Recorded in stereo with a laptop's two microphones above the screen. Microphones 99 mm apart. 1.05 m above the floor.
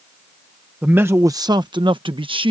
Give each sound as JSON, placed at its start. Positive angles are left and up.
{"t": 0.8, "sound": "a man speaking", "side_deg": -15}